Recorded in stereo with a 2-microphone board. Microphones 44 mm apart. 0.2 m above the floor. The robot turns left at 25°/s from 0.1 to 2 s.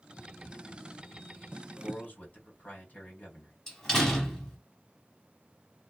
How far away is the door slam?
About 0.8 m.